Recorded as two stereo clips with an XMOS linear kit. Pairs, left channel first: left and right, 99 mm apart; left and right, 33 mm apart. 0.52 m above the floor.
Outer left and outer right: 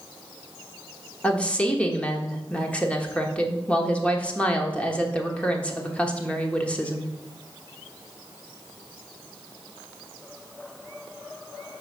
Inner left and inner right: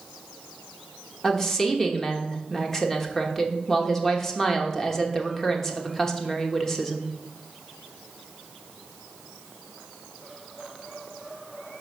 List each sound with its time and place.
1.2 s a woman speaking: 10° left (ahead or behind), 1.1 m